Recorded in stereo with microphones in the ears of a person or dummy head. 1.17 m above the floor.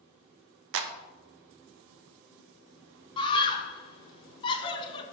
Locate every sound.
0.7 s a clap: 60° right (ahead or behind), 0.5 m
3.2 s a scream: 25° left (ahead or behind), 0.7 m